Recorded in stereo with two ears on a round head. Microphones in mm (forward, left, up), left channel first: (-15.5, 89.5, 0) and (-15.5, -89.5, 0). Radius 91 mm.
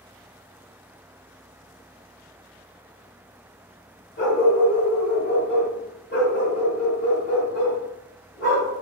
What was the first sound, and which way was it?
A dog barking, 50° left (ahead or behind).